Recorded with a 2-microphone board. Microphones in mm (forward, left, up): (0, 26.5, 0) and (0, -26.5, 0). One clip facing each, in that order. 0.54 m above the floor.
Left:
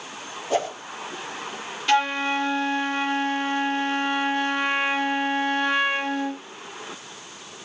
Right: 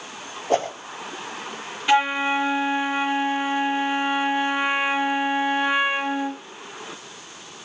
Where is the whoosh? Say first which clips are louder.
Right 2 dB; 45° right (ahead or behind), 7 m.